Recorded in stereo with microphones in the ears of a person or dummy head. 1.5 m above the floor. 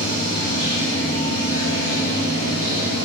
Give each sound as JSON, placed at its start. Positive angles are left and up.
{"t": 0.0, "sound": "running water", "side_deg": -60, "distance_m": 2.5}